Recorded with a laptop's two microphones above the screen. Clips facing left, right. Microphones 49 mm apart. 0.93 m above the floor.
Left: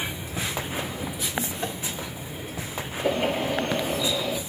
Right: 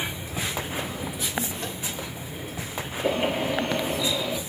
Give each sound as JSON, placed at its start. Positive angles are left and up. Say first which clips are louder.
{"t": 1.6, "sound": "tapping", "louder": "left 3 dB", "side_deg": 15, "distance_m": 3.0}
{"t": 3.0, "sound": "a bird", "louder": "even", "side_deg": -15, "distance_m": 6.5}